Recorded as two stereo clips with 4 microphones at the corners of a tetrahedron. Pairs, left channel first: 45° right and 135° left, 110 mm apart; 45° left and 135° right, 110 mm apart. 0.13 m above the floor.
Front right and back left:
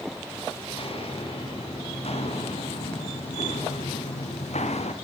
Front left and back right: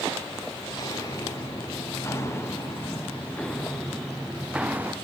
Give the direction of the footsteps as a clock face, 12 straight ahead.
12 o'clock.